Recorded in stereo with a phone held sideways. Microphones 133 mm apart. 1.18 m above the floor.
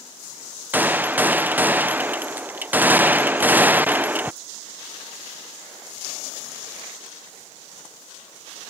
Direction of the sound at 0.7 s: 15° right (ahead or behind).